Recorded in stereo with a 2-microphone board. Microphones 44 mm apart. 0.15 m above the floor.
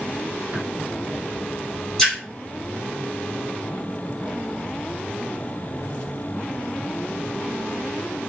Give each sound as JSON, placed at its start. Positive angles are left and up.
{"t": 0.5, "sound": "tapping", "side_deg": -40, "distance_m": 1.7}
{"t": 2.0, "sound": "a splash", "side_deg": 5, "distance_m": 1.6}